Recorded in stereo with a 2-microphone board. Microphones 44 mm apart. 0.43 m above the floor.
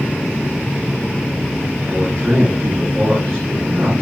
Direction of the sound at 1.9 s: 40° right (ahead or behind).